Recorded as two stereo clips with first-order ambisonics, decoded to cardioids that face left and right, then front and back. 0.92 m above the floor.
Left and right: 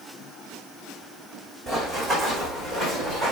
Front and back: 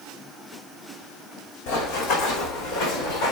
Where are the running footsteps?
Straight ahead, 3.5 m; by 3.3 s 15° left, 4.5 m.